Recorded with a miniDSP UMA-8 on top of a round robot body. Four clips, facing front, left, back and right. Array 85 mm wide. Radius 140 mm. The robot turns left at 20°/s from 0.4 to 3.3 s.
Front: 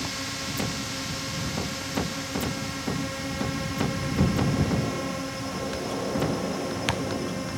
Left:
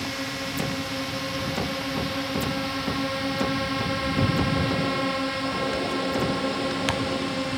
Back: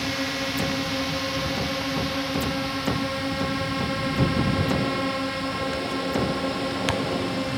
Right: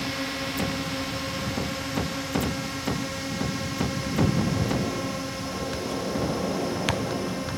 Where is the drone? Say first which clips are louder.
Right 1 dB, back 6 dB; straight behind; by 7.6 s 125° left.